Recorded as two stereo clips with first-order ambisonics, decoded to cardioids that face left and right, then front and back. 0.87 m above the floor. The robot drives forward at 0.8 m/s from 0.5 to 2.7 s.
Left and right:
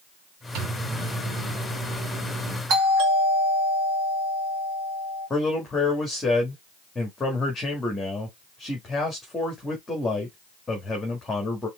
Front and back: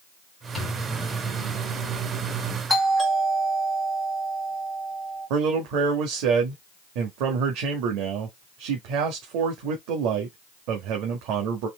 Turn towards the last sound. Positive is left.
turn(degrees=170)